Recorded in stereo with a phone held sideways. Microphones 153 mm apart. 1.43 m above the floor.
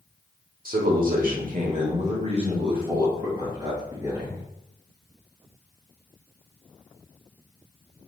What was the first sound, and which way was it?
A man speaking, 70° right (ahead or behind).